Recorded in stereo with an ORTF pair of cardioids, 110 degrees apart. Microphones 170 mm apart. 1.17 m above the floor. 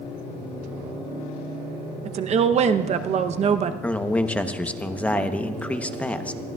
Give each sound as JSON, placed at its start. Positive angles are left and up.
{"t": 2.0, "sound": "a woman speaking", "azimuth_deg": -40, "distance_m": 0.8}
{"t": 3.8, "sound": "a man speaking", "azimuth_deg": 10, "distance_m": 0.9}